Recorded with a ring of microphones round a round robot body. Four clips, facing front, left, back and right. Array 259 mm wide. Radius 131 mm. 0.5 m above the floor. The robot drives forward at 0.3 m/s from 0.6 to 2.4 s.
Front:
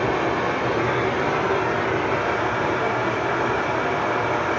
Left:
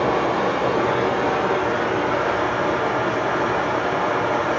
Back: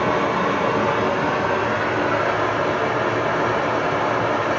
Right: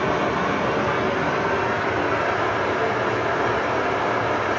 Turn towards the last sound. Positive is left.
turn(degrees=-175)